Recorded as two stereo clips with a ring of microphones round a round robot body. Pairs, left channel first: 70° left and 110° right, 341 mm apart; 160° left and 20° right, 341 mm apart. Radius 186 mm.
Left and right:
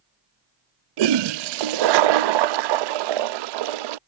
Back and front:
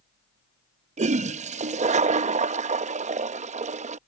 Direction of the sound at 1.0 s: 95° right.